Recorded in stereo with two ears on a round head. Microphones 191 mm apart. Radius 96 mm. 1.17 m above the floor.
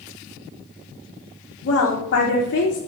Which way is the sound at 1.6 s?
55° left (ahead or behind).